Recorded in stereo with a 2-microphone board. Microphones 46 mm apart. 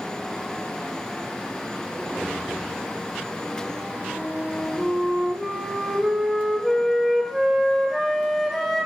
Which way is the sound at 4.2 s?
Centre (ahead or behind).